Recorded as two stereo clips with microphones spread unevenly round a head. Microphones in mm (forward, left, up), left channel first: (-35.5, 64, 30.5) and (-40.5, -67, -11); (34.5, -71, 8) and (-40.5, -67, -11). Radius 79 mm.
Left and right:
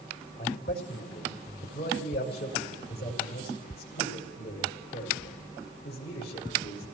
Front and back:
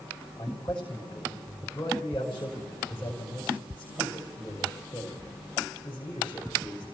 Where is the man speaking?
80° left, 5.5 m.